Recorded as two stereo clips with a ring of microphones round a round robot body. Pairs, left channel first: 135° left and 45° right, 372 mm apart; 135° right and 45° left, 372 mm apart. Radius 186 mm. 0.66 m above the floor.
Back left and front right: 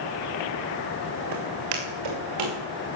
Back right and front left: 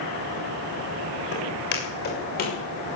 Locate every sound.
1.3 s footsteps: 75° right, 6.5 m; by 2.6 s 70° right, 7 m